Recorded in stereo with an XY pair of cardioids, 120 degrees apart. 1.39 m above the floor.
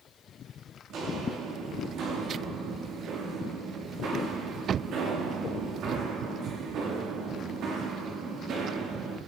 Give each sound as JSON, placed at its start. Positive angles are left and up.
{"t": 0.9, "sound": "footsteps", "azimuth_deg": -65, "distance_m": 6.5}